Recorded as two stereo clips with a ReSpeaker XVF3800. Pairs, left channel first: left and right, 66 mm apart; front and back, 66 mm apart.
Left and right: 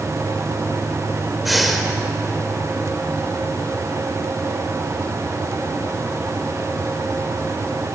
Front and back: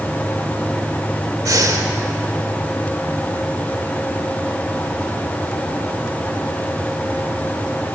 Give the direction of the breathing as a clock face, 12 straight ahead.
6 o'clock.